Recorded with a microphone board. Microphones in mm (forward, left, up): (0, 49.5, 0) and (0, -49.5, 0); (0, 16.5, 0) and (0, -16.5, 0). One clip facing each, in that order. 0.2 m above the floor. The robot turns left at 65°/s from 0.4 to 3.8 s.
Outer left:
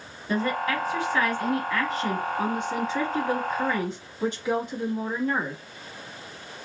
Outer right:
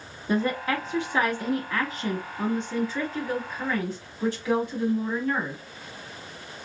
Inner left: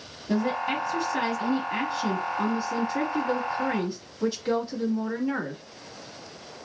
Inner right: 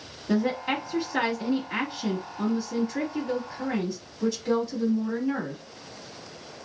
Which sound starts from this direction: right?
A woman speaking, at 0.3 s.